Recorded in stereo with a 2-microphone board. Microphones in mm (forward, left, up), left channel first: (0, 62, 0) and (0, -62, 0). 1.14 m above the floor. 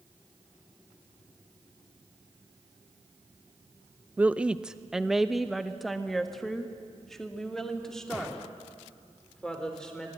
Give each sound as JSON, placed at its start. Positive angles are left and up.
{"t": 4.2, "sound": "a woman speaking", "side_deg": -15, "distance_m": 0.5}